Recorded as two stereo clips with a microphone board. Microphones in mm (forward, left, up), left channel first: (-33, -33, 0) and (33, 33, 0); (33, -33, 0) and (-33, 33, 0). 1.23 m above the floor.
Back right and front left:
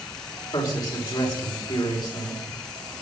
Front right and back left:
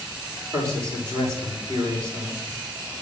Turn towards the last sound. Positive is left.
turn(degrees=-170)